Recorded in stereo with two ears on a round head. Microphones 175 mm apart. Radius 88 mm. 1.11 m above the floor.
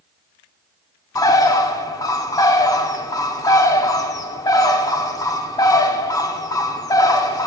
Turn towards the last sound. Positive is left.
turn(degrees=20)  # may be behind; listen again after turning